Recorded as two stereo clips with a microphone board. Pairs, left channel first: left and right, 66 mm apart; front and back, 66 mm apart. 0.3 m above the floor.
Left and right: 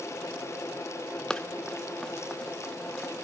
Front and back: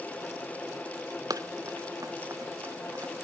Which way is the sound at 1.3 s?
165° left.